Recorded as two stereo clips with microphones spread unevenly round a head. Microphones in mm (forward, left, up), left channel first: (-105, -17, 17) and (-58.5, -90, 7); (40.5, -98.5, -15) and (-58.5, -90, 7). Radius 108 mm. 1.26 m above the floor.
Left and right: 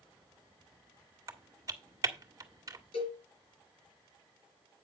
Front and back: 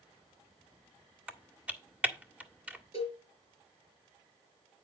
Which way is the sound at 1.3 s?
110° right.